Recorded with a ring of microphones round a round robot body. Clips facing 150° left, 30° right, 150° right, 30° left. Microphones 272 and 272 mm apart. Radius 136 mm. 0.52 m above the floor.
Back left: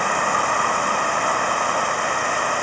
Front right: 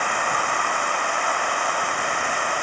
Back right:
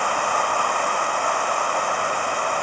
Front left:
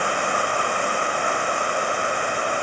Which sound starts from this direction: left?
A vehicle, at 0.0 s.